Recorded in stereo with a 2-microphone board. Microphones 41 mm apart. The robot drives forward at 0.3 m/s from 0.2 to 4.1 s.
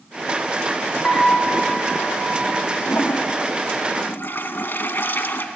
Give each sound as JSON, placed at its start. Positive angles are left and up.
{"t": 1.0, "sound": "a piano", "side_deg": 10, "distance_m": 2.5}
{"t": 2.9, "sound": "a toilet flushing", "side_deg": 75, "distance_m": 0.7}